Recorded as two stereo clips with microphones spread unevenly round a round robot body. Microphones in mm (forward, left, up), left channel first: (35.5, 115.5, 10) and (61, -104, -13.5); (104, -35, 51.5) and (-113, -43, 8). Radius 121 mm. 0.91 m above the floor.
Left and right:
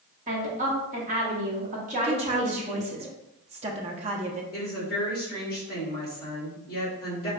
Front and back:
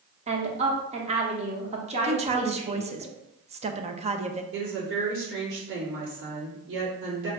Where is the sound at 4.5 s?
150° left, 1.8 m.